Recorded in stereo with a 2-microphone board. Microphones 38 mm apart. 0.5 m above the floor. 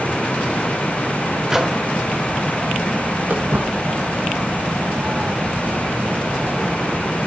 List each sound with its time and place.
1.5 s a microwave: 15° right (ahead or behind), 1.8 m
3.3 s footsteps: 70° right (ahead or behind), 6.5 m; by 7.1 s 80° right, 7 m